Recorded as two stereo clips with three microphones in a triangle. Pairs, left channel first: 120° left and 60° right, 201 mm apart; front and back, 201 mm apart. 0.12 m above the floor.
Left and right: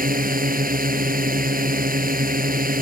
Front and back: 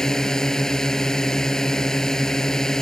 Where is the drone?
85° right.